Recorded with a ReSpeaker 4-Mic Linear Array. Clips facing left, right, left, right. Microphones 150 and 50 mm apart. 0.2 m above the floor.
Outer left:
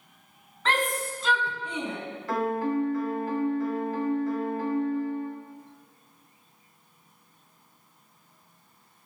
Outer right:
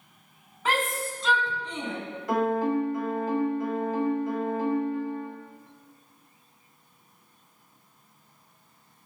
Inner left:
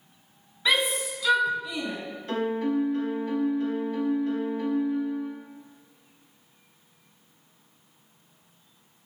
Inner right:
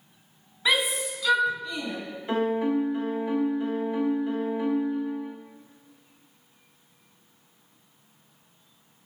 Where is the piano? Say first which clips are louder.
Outer right 2 dB, inner right 2 dB; 20° right (ahead or behind), 0.7 m.